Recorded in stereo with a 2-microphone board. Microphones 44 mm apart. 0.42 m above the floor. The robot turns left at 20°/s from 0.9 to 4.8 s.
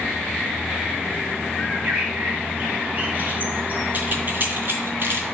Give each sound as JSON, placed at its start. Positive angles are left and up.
{"t": 1.6, "sound": "a bird", "azimuth_deg": -25, "distance_m": 2.0}
{"t": 3.9, "sound": "keys jangling", "side_deg": -35, "distance_m": 3.5}